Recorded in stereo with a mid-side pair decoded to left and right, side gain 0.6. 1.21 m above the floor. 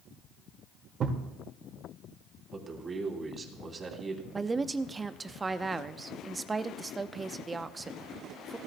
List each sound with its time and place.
1.0 s a thud: 45° right, 2 m
2.5 s a man speaking: 30° right, 3 m
4.3 s a woman speaking: 20° right, 0.7 m